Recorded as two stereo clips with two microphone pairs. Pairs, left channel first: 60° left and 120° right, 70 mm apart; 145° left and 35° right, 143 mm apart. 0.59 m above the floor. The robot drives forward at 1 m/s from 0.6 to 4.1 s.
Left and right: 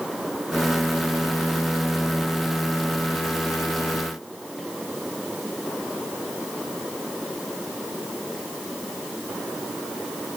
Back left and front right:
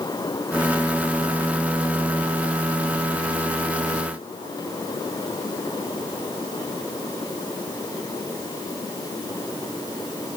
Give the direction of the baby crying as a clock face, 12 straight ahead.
No baby crying in this recording.